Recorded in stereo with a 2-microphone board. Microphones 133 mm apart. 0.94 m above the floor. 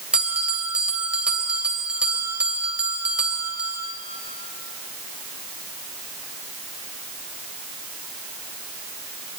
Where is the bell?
10° right (ahead or behind), 3 m.